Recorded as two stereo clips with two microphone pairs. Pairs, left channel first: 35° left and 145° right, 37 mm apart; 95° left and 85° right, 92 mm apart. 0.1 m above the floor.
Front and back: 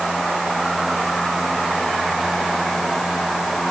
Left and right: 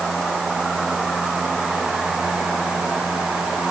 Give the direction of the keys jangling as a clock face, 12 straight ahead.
No keys jangling in this recording.